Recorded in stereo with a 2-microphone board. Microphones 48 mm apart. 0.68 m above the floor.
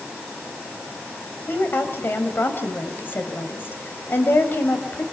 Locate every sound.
1.5 s a woman speaking: 50° left (ahead or behind), 3 m